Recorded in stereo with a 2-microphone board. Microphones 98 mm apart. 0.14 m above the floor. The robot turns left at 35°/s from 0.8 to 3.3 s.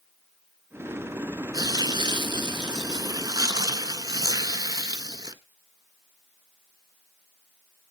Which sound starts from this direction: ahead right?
Tearing paper, at 1.5 s.